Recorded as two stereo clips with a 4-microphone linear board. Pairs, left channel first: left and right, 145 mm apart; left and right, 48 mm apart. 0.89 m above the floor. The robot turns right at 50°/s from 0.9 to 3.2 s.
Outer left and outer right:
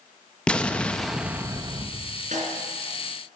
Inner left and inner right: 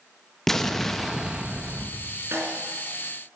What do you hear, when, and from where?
0.5 s an explosion: 170° left, 0.7 m; by 2.2 s 125° right, 0.7 m
2.3 s a snare drum: 55° right (ahead or behind), 3.5 m; by 2.6 s 40° right (ahead or behind), 3.5 m